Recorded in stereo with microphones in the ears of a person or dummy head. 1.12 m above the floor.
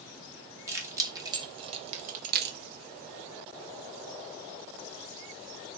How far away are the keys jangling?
About 1.7 m.